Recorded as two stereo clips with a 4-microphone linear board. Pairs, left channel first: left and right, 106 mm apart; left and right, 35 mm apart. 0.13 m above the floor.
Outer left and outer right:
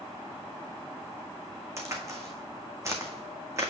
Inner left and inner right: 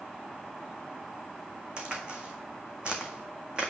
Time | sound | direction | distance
1.8 | a crack | 25° right (ahead or behind) | 1.5 m